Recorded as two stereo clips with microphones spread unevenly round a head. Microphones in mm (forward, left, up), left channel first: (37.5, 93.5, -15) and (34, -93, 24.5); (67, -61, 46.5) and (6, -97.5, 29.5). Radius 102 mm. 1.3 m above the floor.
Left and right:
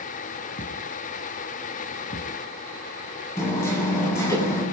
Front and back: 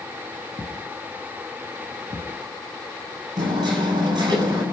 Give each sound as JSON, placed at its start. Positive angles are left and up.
{"t": 0.6, "sound": "a thud", "azimuth_deg": 145, "distance_m": 4.0}
{"t": 3.4, "sound": "hammering", "azimuth_deg": 170, "distance_m": 9.5}